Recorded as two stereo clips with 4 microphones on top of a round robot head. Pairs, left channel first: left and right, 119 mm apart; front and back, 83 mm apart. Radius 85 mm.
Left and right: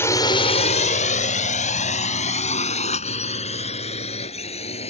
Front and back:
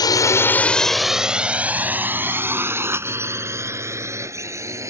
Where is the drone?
20° left; by 4.9 s 125° left.